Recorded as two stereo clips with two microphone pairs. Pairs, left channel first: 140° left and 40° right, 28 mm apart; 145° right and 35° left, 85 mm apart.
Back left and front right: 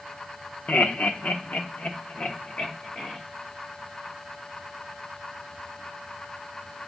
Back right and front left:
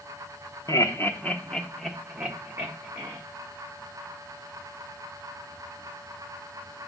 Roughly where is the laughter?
Behind.